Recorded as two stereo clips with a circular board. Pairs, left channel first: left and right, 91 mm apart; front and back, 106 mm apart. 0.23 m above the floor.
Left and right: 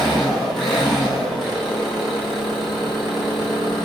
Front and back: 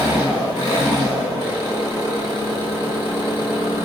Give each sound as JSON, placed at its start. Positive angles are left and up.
{"t": 0.0, "sound": "an engine running", "azimuth_deg": 175, "distance_m": 1.5}